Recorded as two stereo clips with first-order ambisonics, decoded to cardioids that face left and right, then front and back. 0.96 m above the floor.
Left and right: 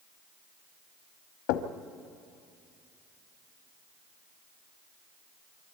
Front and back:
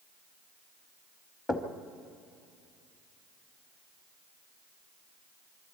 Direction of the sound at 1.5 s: 80° left.